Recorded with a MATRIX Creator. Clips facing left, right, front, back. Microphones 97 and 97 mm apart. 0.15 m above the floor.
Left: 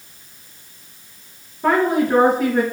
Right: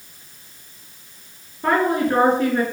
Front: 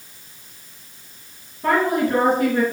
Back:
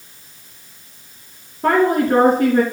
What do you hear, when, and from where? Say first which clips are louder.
1.6 s a woman speaking: left 2 dB, back 4 dB; 170° left, 2 m